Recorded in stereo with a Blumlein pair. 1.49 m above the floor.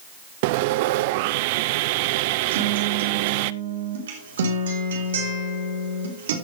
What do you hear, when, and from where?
0.4 s sawing: 50° right, 0.5 m
2.5 s a guitar: 65° right, 3 m